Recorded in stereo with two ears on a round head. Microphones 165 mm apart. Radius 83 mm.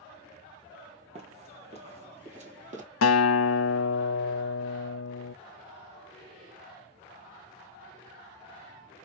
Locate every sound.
1.1 s running footsteps: 35° right (ahead or behind), 2.0 m; by 2.8 s 40° right (ahead or behind), 2.5 m
3.0 s a guitar: 75° left (ahead or behind), 0.5 m